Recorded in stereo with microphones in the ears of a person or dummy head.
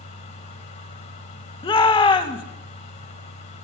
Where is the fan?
40° left (ahead or behind), 3.5 m.